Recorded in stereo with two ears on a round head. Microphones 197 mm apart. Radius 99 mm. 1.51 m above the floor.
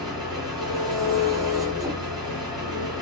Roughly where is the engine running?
Centre.